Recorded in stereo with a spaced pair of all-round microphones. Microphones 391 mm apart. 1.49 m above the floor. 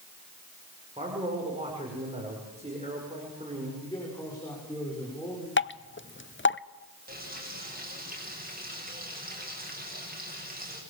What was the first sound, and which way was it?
A man speaking, 15° right (ahead or behind).